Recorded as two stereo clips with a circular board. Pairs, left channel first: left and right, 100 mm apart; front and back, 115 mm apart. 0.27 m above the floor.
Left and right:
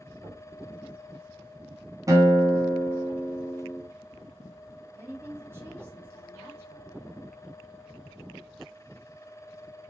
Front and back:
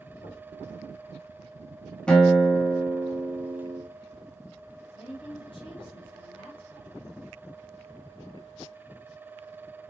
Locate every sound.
0.2 s knocking: 35° right, 3.5 m
2.1 s a guitar: 80° right, 1.6 m
5.0 s a woman speaking: 30° right, 2 m